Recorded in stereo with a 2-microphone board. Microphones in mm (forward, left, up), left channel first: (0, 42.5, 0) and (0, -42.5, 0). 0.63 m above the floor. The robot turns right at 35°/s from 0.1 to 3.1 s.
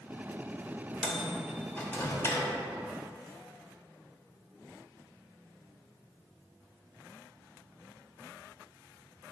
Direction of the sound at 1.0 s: 10° left (ahead or behind).